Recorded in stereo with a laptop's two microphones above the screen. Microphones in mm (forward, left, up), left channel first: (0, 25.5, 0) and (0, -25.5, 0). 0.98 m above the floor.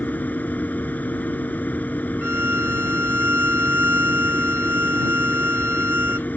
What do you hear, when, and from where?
0.0 s a machine running: 35° left (ahead or behind)
2.2 s a violin: 50° right (ahead or behind)